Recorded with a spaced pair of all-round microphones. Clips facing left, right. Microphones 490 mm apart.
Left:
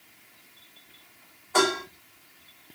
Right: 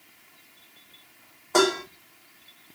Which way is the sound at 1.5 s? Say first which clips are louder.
Right 3 dB; 65° right (ahead or behind).